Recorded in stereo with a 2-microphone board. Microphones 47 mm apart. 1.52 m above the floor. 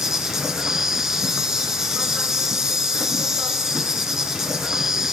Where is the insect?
10° right (ahead or behind), 1.7 m.